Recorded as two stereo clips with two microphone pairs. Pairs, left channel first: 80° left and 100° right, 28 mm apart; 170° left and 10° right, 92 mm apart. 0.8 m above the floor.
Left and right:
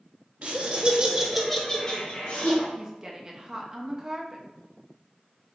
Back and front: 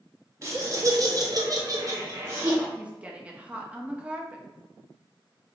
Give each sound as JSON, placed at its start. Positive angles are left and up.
{"t": 0.4, "sound": "laughter", "azimuth_deg": -60, "distance_m": 0.9}
{"t": 2.8, "sound": "a woman speaking", "azimuth_deg": -60, "distance_m": 0.5}